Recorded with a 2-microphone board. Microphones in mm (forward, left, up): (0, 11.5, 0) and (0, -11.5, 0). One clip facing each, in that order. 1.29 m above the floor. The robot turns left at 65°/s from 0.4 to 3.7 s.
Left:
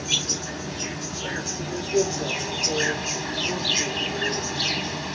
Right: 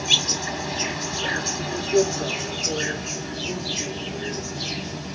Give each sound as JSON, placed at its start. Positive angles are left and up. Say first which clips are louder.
{"t": 0.0, "sound": "an insect", "louder": "right 4 dB", "azimuth_deg": -55, "distance_m": 1.2}